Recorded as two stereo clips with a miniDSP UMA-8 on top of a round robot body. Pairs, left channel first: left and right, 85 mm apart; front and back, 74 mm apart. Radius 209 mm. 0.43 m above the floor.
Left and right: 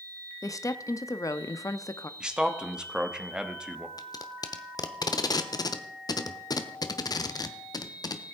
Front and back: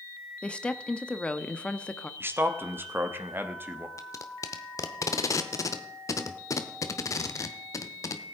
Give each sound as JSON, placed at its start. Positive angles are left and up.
{"t": 0.4, "sound": "a woman speaking", "azimuth_deg": 70, "distance_m": 0.9}
{"t": 2.2, "sound": "a man speaking", "azimuth_deg": -160, "distance_m": 1.4}
{"t": 4.0, "sound": "tape being pulled", "azimuth_deg": 45, "distance_m": 0.7}